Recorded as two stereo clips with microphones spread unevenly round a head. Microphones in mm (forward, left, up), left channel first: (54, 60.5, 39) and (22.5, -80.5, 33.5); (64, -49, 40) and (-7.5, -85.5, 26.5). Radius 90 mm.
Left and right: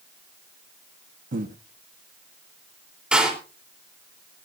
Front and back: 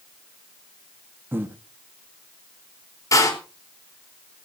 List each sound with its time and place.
1.3 s breathing: 85° right, 1.4 m
3.1 s a door slam: 20° right, 4 m